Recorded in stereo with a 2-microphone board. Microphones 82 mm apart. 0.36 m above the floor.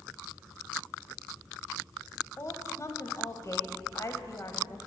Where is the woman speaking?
40° left (ahead or behind), 1.6 m.